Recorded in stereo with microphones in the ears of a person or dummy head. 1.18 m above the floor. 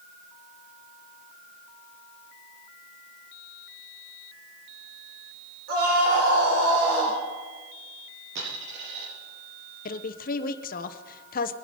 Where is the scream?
50° right (ahead or behind), 4.5 m; by 7.2 s 65° right (ahead or behind), 4.5 m.